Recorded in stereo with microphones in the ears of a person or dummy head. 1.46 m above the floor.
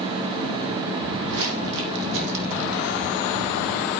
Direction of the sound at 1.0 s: 70° right (ahead or behind).